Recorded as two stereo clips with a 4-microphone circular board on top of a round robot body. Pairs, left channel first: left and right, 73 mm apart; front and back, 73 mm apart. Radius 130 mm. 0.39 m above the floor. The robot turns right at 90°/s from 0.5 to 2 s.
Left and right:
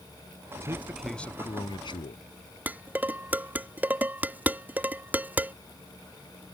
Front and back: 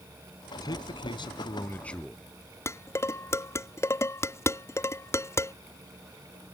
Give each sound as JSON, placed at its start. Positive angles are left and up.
{"t": 0.6, "sound": "a man speaking", "azimuth_deg": -40}
{"t": 2.7, "sound": "dishes clattering", "azimuth_deg": -30}